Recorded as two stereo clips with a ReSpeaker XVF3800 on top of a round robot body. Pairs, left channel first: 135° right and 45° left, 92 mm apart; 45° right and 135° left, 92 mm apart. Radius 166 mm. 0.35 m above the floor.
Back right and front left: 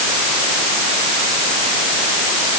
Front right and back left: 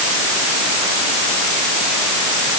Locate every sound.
Only background noise.